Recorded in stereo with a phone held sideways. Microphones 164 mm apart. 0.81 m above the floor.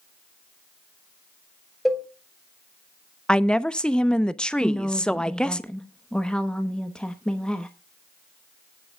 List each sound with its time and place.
1.9 s a cowbell: centre (ahead or behind), 1.1 m
3.3 s a woman speaking: 5° left (ahead or behind), 0.5 m
4.6 s a woman speaking: 5° left (ahead or behind), 0.9 m